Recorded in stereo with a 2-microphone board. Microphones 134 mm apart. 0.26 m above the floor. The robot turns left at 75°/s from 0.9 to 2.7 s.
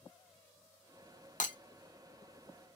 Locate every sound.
1.4 s breaking glass: 75° left (ahead or behind), 0.5 m